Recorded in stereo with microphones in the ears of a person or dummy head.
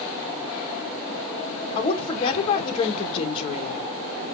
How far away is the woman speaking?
About 1.9 m.